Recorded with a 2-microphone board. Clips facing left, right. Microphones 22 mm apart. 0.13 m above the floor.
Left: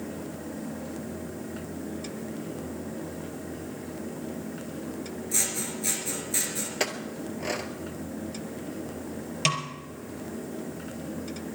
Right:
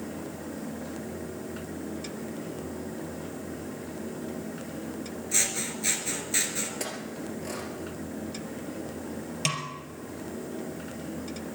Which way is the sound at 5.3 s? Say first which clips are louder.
Right 2 dB; 20° right (ahead or behind).